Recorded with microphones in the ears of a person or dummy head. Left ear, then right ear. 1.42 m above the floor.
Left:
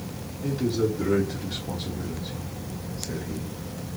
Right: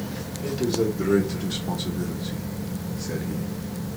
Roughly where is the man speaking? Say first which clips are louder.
Right 1 dB; right.